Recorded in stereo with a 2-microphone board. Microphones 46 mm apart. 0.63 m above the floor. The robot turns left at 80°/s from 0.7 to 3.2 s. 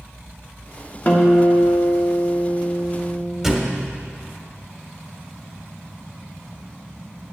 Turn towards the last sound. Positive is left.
turn(degrees=-10)  # may be behind; listen again after turning